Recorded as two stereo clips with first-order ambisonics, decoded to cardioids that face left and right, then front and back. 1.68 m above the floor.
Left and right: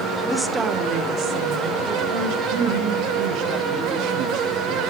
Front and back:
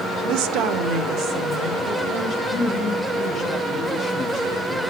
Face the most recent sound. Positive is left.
turn(degrees=-65)